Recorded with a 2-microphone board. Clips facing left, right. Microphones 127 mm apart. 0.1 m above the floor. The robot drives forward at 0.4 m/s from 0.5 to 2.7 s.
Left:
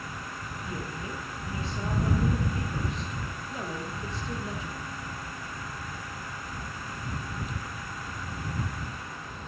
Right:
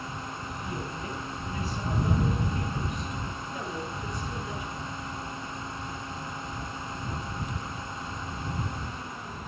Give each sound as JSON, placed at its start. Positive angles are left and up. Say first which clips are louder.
{"t": 0.6, "sound": "a woman speaking", "louder": "even", "side_deg": 25, "distance_m": 2.5}